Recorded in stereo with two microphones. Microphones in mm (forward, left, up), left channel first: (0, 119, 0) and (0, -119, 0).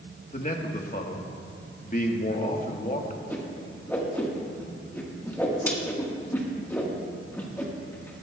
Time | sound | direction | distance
0.3 | a man speaking | 35° left (ahead or behind) | 1.2 m
3.3 | a whoosh | 10° left (ahead or behind) | 1.6 m